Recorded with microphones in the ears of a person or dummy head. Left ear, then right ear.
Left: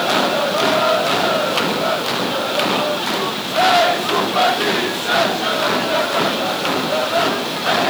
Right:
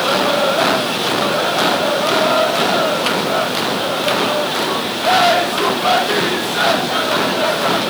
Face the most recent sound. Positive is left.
No sound to turn to.